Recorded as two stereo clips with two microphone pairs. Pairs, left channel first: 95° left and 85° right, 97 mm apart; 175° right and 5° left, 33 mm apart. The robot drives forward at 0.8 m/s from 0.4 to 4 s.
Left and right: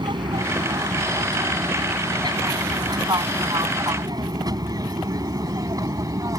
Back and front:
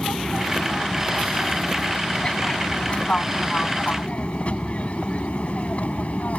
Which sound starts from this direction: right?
An aircraft, at 0.0 s.